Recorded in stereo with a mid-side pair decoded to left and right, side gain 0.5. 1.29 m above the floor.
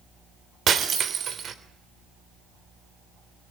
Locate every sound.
0.7 s breaking glass: 50° right, 3 m